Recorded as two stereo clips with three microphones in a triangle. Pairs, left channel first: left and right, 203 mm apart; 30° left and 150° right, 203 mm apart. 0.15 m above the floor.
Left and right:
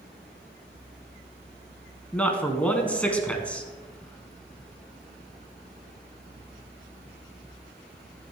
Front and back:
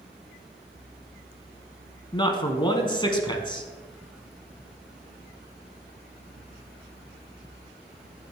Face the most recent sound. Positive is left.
turn(degrees=15)